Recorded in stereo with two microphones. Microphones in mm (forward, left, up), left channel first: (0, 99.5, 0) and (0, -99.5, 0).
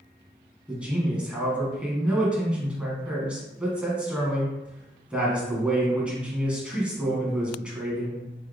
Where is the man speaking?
5° right (ahead or behind), 1.4 m.